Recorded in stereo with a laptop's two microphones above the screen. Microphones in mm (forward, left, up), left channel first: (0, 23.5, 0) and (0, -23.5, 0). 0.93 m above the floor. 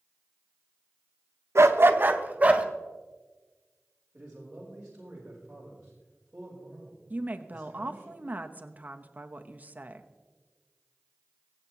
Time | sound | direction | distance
1.6 | a dog barking | 70° right (ahead or behind) | 0.7 m
4.1 | a man speaking | 25° right (ahead or behind) | 3.5 m
7.1 | a woman speaking | 35° right (ahead or behind) | 0.9 m